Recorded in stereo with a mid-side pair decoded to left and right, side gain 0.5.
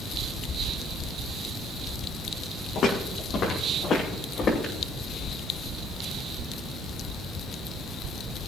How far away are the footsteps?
About 5 m.